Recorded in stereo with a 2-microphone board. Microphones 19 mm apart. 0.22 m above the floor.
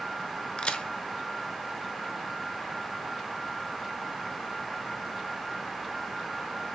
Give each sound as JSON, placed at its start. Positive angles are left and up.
{"t": 0.6, "sound": "a crack", "side_deg": 60, "distance_m": 0.5}